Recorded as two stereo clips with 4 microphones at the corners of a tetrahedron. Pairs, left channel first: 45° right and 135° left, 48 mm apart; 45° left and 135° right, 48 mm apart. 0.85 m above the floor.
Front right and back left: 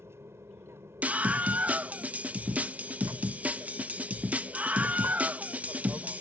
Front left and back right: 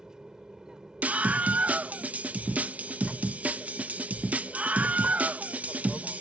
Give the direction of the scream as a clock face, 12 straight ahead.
6 o'clock.